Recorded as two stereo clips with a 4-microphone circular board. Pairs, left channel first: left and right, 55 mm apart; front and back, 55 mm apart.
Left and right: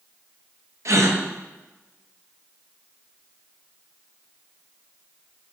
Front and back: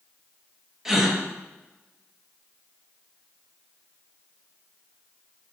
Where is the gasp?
100° right, 0.9 m.